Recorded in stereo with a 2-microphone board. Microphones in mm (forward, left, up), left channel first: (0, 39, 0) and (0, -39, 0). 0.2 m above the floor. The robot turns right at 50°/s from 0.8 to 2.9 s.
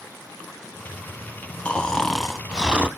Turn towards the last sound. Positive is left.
turn(degrees=-145)